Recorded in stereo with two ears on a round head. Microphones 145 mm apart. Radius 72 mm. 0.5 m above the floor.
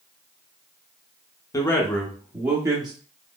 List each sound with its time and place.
1.5 s a man speaking: 20° left (ahead or behind), 0.8 m; by 2.9 s 25° right (ahead or behind), 0.8 m